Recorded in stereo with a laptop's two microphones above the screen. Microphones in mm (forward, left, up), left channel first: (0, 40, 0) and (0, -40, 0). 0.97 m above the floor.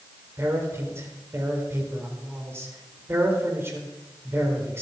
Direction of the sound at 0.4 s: 30° right (ahead or behind).